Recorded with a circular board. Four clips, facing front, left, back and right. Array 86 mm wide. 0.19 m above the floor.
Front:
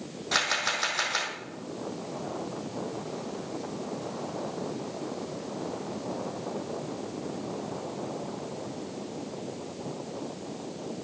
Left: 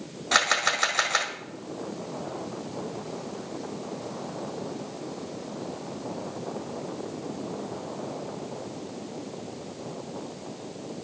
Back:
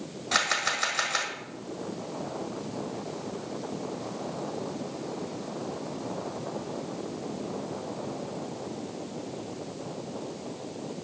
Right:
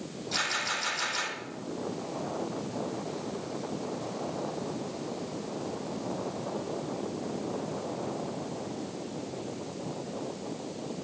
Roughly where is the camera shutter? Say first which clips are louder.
Left 9 dB, back 1 dB; left.